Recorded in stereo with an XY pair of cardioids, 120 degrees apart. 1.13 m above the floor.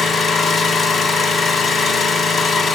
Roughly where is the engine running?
Ahead left.